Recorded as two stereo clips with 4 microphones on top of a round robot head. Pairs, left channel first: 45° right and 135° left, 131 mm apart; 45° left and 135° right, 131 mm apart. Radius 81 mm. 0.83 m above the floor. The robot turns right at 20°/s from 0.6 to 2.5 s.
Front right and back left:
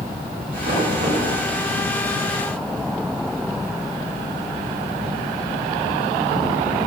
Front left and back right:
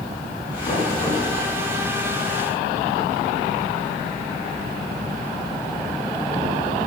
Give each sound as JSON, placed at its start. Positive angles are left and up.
{"t": 0.6, "sound": "knocking", "azimuth_deg": 100, "distance_m": 6.5}